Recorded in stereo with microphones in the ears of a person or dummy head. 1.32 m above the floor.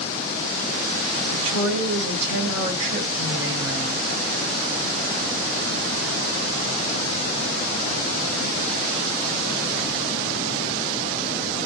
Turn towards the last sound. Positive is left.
turn(degrees=-5)  # may be behind; listen again after turning